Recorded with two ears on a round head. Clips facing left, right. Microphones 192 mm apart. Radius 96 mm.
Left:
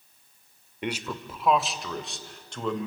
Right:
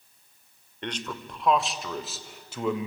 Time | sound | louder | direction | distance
0.8 | a man speaking | left 3 dB | 10° left (ahead or behind) | 1.5 m